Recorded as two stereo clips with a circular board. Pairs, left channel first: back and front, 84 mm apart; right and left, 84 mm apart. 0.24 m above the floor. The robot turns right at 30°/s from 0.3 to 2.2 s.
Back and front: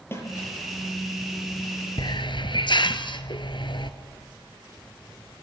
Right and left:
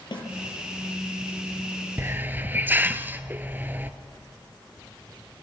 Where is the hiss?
150° left, 1.1 m; by 3.9 s 155° left, 1.1 m.